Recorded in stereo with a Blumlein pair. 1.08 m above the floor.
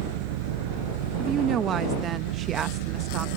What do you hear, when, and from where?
0.0 s an engine running: 50° right
1.2 s a woman speaking: 25° right